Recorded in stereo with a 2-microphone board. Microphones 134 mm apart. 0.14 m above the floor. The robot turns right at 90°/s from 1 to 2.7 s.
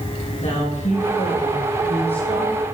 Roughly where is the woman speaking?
Ahead left.